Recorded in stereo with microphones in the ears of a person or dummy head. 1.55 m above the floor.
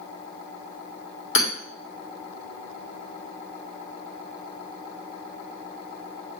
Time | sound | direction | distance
1.4 | hammering | 70° left (ahead or behind) | 2.5 m